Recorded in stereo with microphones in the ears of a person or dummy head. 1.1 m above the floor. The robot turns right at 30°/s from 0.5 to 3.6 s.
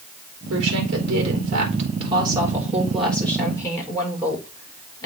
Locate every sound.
0.5 s a woman speaking: 75° right, 3.5 m; by 5.1 s 15° left, 3.5 m